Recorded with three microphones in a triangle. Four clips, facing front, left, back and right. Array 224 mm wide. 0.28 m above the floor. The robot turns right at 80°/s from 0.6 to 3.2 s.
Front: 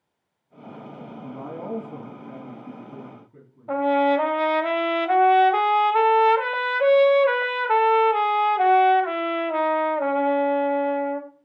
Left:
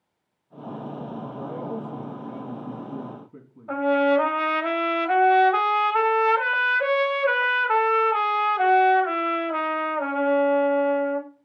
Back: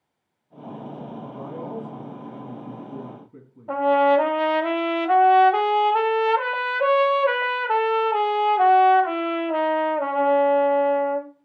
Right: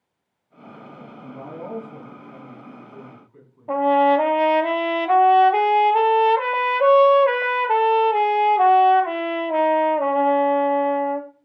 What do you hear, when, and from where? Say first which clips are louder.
1.2 s a man speaking: right 2 dB, front 3 dB; 35° right, 2.5 m; by 3.7 s 125° left, 2.5 m
3.7 s a trumpet: right 4 dB, back 2 dB; 100° right, 0.9 m